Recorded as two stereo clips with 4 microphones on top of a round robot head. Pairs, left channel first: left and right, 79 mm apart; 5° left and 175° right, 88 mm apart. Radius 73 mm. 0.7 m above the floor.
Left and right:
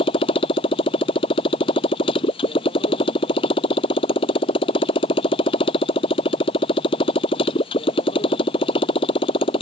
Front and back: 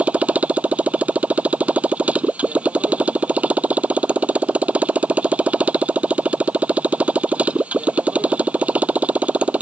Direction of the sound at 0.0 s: 110° left.